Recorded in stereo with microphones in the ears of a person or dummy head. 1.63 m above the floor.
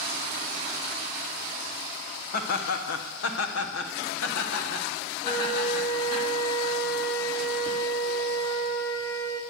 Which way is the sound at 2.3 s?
50° left (ahead or behind).